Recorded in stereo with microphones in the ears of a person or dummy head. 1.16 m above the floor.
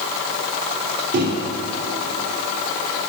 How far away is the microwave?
About 1.3 m.